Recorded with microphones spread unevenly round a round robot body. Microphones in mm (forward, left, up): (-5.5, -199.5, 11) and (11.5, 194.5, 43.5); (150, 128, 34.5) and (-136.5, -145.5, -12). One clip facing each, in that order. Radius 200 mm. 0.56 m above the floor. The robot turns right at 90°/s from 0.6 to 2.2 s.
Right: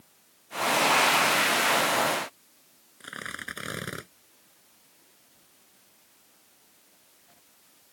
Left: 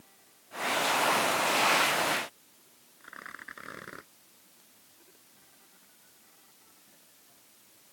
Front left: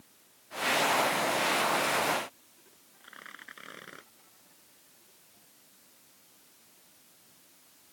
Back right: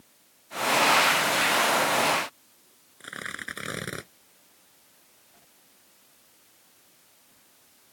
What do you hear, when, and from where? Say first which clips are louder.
3.0 s tearing paper: right 9 dB, back right 14 dB; 120° right